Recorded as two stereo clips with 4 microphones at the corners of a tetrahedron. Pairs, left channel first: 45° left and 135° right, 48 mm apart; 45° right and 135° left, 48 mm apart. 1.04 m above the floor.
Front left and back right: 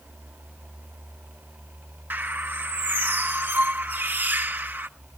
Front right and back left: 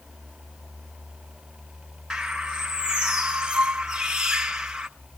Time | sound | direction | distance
2.1 | a bird | 160° right | 1.1 m